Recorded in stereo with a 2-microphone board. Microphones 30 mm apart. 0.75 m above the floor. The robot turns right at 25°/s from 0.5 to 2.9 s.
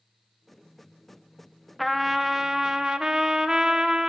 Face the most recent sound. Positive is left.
turn(degrees=-20)  # may be behind; listen again after turning